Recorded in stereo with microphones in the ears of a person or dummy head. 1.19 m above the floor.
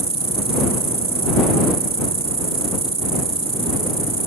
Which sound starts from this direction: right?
An insect, at 0.0 s.